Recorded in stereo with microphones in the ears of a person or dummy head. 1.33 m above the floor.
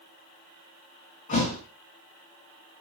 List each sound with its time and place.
1.3 s a thud: 35° left (ahead or behind), 3 m